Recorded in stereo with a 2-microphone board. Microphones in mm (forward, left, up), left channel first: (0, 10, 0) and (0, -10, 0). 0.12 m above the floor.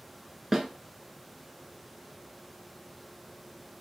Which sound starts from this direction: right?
A snare drum, at 0.5 s.